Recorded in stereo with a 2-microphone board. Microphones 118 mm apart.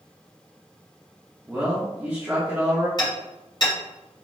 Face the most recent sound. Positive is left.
turn(degrees=40)  # may be behind; listen again after turning